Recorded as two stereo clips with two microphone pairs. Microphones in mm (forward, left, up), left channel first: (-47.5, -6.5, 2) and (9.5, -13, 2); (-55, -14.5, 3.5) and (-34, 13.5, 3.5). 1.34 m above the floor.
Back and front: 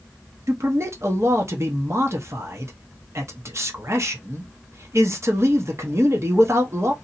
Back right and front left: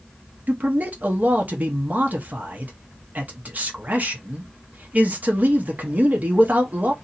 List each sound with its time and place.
0.5 s a man speaking: 20° left, 1.0 m